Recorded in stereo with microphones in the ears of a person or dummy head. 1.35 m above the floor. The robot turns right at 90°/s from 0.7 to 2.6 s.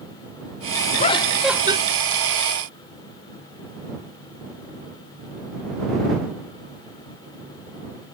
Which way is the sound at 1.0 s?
140° left.